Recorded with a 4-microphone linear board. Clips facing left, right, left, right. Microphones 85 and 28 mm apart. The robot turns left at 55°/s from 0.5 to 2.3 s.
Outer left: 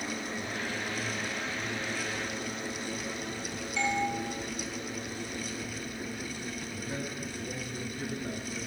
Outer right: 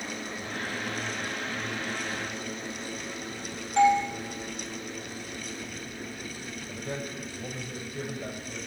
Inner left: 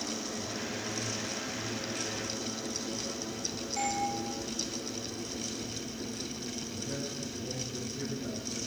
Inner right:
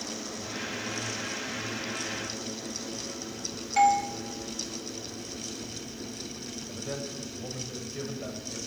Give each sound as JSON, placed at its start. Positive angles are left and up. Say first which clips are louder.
{"t": 3.8, "sound": "a doorbell", "louder": "outer right 10 dB, inner right 12 dB", "side_deg": -60, "distance_m": 2.0}
{"t": 6.7, "sound": "a man speaking", "louder": "outer right 5 dB, inner right 1 dB", "side_deg": -70, "distance_m": 4.5}